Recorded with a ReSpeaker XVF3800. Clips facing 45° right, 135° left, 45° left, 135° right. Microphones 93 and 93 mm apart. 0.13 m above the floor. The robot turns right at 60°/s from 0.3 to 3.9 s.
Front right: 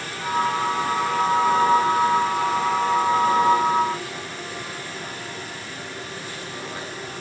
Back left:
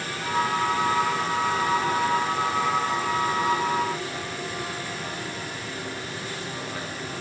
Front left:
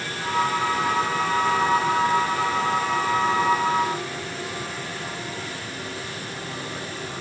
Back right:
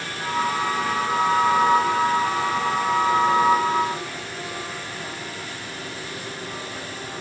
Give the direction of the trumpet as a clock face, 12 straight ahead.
I don't hear a trumpet.